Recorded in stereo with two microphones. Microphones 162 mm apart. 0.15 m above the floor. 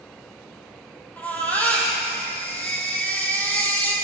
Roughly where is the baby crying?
Centre.